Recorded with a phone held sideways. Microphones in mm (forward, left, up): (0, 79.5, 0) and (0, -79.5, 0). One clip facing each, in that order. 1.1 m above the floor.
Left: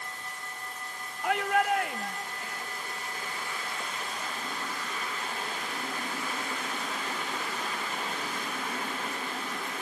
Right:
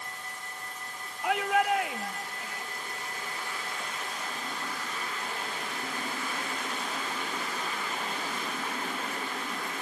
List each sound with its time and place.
1.2 s a shout: centre (ahead or behind)